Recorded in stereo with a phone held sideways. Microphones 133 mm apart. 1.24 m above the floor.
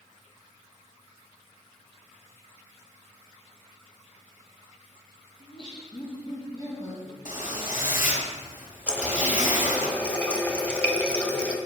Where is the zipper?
75° left (ahead or behind), 3 m.